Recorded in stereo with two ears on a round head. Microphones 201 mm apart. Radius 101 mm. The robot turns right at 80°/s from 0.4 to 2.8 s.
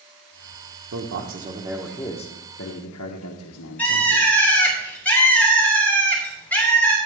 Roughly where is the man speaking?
Right.